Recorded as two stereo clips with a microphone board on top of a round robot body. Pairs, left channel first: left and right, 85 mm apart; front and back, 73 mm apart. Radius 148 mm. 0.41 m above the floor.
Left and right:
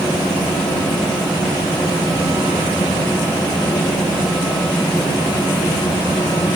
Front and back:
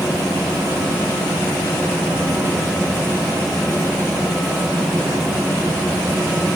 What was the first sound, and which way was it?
Only background noise.